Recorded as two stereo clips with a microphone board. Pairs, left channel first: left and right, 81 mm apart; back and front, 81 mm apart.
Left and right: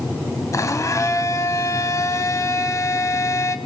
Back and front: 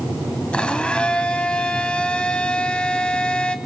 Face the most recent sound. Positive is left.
turn(degrees=110)